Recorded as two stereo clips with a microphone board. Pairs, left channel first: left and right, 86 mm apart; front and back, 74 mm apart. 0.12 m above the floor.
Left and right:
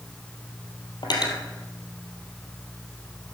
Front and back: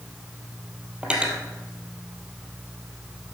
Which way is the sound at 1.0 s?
105° left.